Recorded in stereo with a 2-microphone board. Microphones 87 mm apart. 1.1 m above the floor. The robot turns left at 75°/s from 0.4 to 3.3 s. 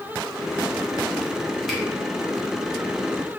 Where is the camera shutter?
Centre (ahead or behind), 0.8 m; by 1.8 s 10° left (ahead or behind), 0.8 m.